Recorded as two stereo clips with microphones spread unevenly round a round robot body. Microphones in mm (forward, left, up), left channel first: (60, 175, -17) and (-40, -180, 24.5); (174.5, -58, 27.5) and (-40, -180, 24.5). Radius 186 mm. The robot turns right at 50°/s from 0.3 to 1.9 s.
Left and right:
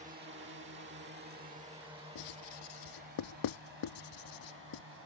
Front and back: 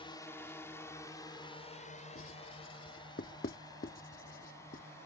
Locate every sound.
0.0 s a drone: 35° right; by 5.1 s 50° right
2.1 s writing: 90° left